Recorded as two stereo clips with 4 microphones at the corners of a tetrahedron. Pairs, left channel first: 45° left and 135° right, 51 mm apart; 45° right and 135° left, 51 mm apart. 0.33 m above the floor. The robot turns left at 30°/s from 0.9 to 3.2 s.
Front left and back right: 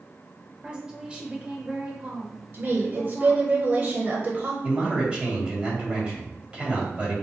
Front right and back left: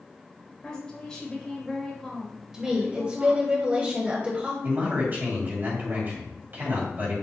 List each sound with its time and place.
0.6 s a woman speaking: 85° right, 0.9 m; by 3.5 s 155° right, 0.9 m
2.5 s a woman speaking: 150° right, 1.2 m; by 4.5 s 170° right, 1.2 m
4.6 s a man speaking: 165° left, 1.9 m